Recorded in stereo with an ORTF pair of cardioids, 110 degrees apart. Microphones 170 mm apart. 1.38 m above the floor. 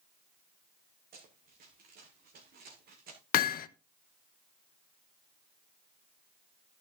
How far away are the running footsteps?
About 4.5 m.